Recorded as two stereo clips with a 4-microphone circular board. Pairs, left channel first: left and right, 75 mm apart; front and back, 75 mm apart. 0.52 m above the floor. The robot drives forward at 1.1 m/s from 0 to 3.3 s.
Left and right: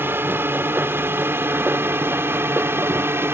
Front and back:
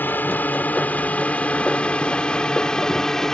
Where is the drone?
50° right; by 3.3 s 75° right.